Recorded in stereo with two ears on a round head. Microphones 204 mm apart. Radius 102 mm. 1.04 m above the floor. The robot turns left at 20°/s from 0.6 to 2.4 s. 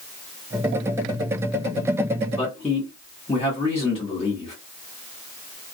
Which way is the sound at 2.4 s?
15° left (ahead or behind).